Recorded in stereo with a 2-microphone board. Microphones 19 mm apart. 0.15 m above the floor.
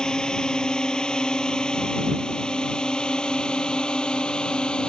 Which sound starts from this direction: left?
A drone, at 0.0 s.